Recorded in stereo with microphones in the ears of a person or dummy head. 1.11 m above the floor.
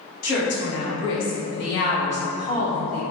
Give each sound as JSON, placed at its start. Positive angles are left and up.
{"t": 0.2, "sound": "a woman speaking", "side_deg": 80, "distance_m": 1.5}